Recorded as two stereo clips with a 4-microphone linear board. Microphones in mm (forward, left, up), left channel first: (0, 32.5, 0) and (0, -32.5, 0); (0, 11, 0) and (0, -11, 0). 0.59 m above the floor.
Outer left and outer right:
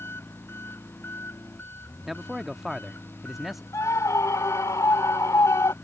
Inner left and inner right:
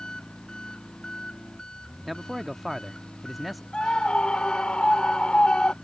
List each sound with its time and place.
0.0 s an engine running: 35° left (ahead or behind)
2.0 s a man speaking: 5° right (ahead or behind)
3.7 s a scream: 55° left (ahead or behind)